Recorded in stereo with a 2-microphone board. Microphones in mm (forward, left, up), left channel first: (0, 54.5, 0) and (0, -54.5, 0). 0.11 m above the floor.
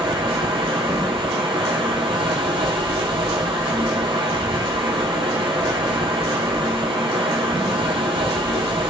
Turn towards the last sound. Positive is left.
turn(degrees=-55)  # may be behind; listen again after turning